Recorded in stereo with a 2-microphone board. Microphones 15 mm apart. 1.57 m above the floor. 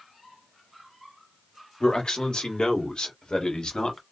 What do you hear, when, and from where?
1.8 s a man speaking: 70° left (ahead or behind), 1.7 m; by 4.0 s 55° left (ahead or behind), 1.2 m